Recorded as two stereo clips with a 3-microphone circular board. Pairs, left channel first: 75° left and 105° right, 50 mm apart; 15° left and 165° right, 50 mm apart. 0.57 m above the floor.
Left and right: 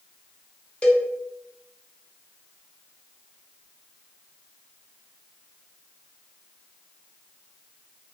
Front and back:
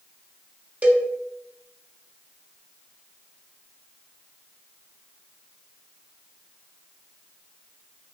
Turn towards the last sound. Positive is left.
turn(degrees=140)